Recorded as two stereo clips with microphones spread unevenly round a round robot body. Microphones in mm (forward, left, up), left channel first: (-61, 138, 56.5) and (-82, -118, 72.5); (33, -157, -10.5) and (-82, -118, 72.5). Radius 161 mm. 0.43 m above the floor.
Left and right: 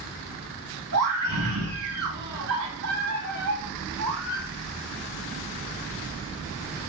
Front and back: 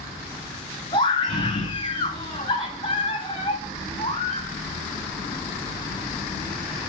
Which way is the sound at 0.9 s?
60° right.